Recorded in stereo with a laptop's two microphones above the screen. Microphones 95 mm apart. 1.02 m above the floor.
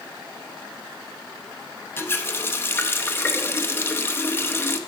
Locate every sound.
2.0 s a running tap: 25° left (ahead or behind), 0.7 m